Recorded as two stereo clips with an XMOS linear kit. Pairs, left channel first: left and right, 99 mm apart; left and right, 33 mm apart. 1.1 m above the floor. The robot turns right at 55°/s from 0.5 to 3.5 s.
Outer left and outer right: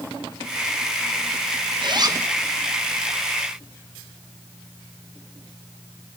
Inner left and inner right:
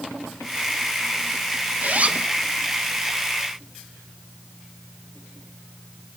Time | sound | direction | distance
1.8 | a zipper | 50° right (ahead or behind) | 1.2 m